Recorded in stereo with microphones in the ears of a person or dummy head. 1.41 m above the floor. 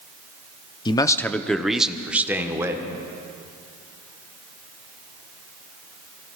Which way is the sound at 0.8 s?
25° left (ahead or behind).